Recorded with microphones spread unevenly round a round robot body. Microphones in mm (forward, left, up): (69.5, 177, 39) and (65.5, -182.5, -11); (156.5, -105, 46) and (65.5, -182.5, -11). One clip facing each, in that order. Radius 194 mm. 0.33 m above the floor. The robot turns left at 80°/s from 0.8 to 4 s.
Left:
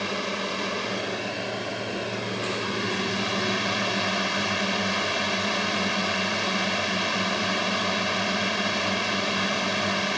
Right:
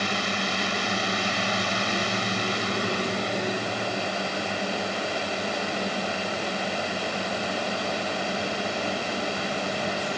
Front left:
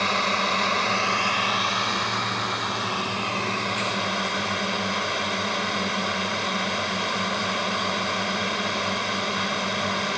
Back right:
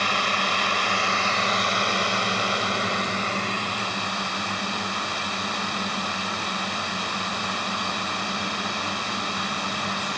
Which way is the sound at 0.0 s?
25° right.